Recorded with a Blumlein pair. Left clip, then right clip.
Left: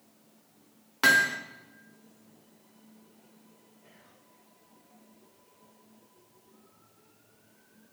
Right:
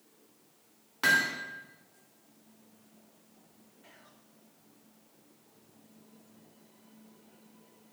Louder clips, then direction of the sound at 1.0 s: Left 4 dB; 15° left.